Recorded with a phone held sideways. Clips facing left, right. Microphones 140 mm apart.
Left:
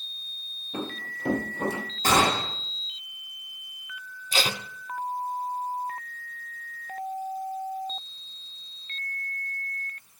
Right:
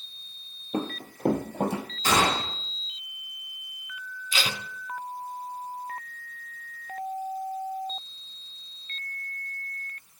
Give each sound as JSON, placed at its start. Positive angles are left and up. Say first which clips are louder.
{"t": 0.7, "sound": "running footsteps", "louder": "right 4 dB", "side_deg": -35, "distance_m": 1.6}
{"t": 2.0, "sound": "a gunshot", "louder": "left 2 dB", "side_deg": 50, "distance_m": 2.5}
{"t": 4.3, "sound": "tape being pulled", "louder": "left 3 dB", "side_deg": 40, "distance_m": 0.5}